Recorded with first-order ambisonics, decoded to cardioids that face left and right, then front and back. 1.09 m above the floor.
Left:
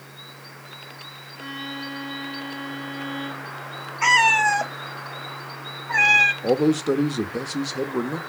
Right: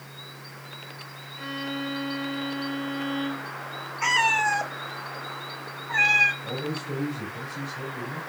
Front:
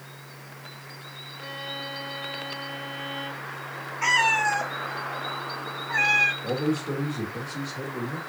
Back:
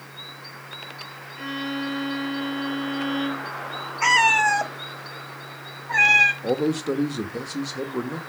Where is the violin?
170° right, 4.5 m.